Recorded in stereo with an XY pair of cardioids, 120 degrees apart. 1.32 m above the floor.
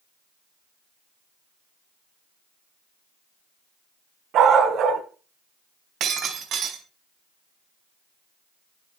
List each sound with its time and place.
4.3 s a dog barking: 65° right, 5 m
6.0 s breaking glass: 60° right, 5 m